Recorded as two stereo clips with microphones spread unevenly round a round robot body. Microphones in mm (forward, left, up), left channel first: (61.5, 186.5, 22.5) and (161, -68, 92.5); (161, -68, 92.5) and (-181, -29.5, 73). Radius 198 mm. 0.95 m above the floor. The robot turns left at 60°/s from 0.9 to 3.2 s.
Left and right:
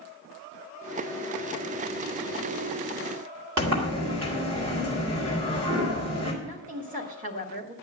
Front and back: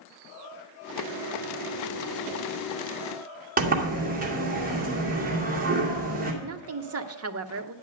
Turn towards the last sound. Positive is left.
turn(degrees=-140)